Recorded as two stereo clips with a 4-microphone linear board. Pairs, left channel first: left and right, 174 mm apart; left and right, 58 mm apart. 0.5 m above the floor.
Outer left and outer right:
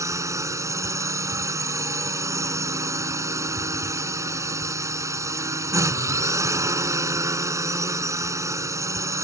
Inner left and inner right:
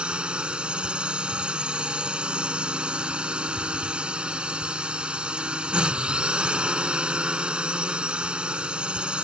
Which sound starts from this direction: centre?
A drone, at 0.0 s.